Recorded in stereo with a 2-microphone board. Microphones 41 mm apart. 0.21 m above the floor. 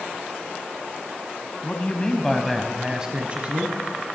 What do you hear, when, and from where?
1.6 s a man speaking: 35° left (ahead or behind), 1.3 m; by 3.8 s 40° right (ahead or behind), 1.5 m